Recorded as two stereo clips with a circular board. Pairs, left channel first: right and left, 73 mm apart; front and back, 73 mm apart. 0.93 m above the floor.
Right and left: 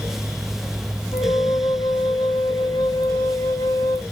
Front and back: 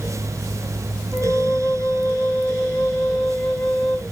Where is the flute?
70° right, 1.8 m.